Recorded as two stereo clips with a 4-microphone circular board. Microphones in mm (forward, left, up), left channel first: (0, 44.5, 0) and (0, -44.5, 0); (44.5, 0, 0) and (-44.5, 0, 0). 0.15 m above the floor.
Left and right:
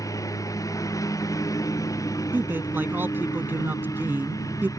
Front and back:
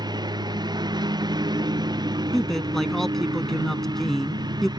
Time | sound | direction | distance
0.0 | a lawn mower | 140° left | ?
2.3 | a man speaking | 80° right | ?